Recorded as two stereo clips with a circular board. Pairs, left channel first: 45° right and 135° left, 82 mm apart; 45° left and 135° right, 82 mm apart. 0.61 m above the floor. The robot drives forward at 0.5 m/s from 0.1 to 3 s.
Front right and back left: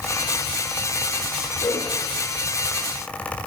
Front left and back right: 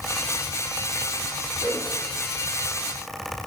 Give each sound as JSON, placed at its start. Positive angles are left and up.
{"t": 1.6, "sound": "a whoosh", "azimuth_deg": -80, "distance_m": 4.0}